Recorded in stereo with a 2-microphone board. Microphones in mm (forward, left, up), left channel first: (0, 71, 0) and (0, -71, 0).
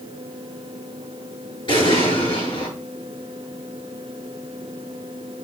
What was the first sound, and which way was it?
An explosion, 35° left (ahead or behind).